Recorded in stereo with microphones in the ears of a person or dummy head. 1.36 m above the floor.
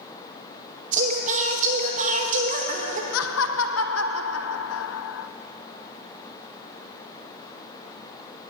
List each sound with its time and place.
0.9 s singing: 45° right (ahead or behind), 1.1 m
3.1 s laughter: 75° left (ahead or behind), 0.6 m